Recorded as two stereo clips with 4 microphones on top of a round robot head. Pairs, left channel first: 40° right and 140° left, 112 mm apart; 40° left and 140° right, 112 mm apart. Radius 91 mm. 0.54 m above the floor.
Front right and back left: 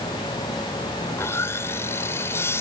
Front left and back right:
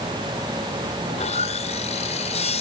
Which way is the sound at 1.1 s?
25° left.